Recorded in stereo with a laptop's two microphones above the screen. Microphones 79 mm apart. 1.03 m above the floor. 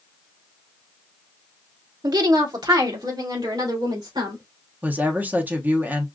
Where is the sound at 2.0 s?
55° right (ahead or behind), 0.7 m; by 4.4 s 65° right (ahead or behind), 3 m.